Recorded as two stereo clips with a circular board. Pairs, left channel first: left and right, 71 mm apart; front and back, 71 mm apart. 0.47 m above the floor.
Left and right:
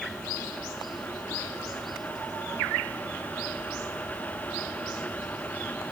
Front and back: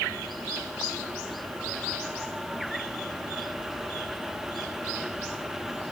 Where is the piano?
I don't hear a piano.